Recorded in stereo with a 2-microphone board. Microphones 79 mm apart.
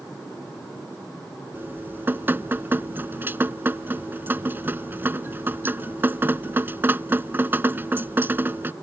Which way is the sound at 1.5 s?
25° right (ahead or behind).